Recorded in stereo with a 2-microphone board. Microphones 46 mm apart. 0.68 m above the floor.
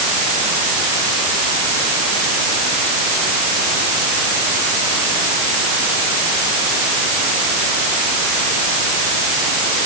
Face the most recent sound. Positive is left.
No sound to turn to.